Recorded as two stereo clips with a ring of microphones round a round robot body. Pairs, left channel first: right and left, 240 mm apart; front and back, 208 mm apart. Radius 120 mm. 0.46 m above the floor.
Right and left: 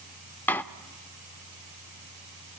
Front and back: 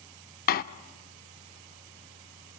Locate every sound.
0.5 s a door slam: 10° right, 0.5 m